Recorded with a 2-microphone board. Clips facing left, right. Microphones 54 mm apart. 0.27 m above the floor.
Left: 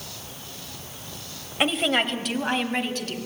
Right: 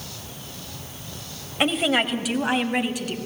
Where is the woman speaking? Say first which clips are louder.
Right 1 dB; centre (ahead or behind), 1.2 m; by 3.2 s 10° right (ahead or behind), 2 m.